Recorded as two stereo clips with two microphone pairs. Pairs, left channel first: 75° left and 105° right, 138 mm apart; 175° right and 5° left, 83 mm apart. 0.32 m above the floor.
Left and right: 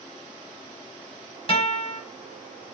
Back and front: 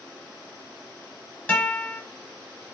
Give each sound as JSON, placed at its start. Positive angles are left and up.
{"t": 1.5, "sound": "a guitar", "azimuth_deg": 120, "distance_m": 0.9}